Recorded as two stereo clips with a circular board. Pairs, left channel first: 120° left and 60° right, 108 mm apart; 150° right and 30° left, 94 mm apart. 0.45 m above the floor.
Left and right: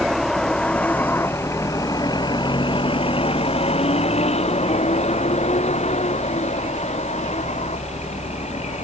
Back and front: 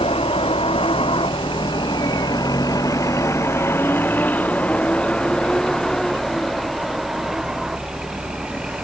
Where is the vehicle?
150° right; by 8.8 s 110° left.